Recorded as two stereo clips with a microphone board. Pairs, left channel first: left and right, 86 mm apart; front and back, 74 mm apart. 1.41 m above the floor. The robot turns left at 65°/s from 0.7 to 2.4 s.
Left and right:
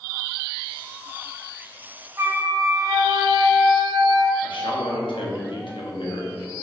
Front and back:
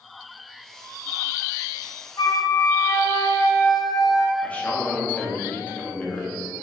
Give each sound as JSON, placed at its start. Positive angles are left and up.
{"t": 2.2, "sound": "a flute", "azimuth_deg": -30, "distance_m": 0.7}
{"t": 4.4, "sound": "a man speaking", "azimuth_deg": 70, "distance_m": 1.6}